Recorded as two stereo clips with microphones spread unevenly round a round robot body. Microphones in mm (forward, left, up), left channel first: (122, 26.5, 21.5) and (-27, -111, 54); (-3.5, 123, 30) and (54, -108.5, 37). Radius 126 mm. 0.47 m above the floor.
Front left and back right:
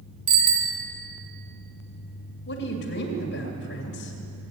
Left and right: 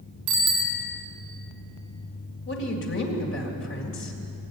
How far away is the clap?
No clap in this recording.